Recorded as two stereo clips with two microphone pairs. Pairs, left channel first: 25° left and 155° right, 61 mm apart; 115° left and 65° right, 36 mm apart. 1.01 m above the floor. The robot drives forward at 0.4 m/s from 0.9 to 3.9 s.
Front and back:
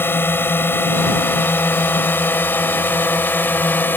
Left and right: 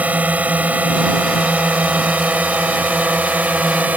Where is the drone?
25° right; by 4.0 s 30° right.